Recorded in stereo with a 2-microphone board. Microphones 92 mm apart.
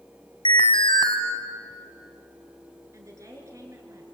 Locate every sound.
0.5 s an alarm: 65° left (ahead or behind), 2.5 m
2.9 s a woman speaking: 35° right (ahead or behind), 6 m